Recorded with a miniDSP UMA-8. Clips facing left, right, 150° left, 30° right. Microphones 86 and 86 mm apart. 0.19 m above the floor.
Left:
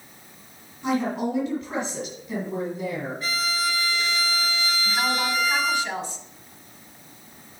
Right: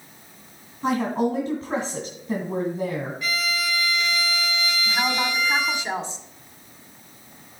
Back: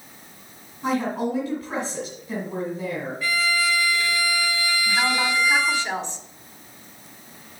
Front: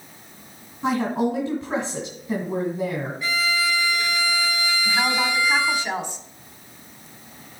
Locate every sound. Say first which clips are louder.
0.8 s a woman speaking: right 2 dB, front 2 dB; 75° right, 1.9 m
3.2 s a violin: left 2 dB, back 1 dB; 40° left, 0.8 m
4.8 s a woman speaking: even, even; 85° right, 1.1 m